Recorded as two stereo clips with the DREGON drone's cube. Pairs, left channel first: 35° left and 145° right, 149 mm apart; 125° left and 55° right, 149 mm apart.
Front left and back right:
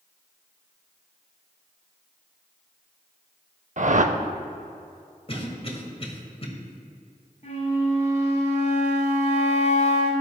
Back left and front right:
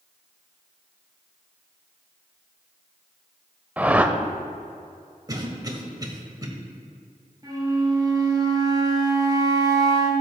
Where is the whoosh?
135° right, 0.5 m.